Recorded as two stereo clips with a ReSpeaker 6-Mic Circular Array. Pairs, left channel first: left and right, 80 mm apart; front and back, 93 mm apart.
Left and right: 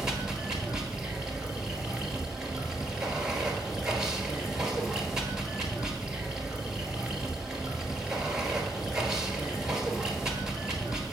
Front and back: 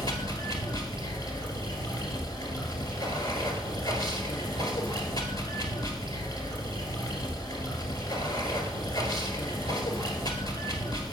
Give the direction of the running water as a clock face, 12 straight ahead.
12 o'clock.